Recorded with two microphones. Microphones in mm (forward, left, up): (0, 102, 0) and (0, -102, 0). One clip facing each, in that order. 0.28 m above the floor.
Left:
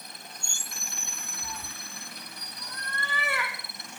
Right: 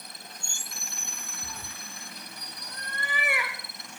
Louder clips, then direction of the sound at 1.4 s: Left 3 dB; 50° right (ahead or behind).